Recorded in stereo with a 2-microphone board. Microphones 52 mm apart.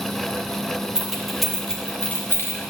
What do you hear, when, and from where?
0.9 s keys jangling: 10° right (ahead or behind), 1.3 m; by 2.6 s 60° left (ahead or behind), 1.0 m